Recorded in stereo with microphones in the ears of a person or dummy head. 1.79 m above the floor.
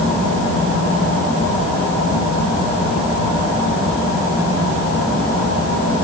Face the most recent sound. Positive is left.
No sound to turn to.